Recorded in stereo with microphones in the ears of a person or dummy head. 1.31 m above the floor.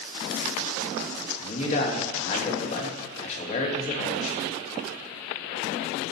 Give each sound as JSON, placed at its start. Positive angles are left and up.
{"t": 1.4, "sound": "a man speaking", "side_deg": 35, "distance_m": 1.7}